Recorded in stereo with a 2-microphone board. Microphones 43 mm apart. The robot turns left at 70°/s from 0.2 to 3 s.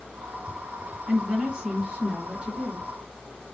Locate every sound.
1.1 s a woman speaking: 20° right (ahead or behind), 1.4 m; by 2.9 s 5° right (ahead or behind), 1.4 m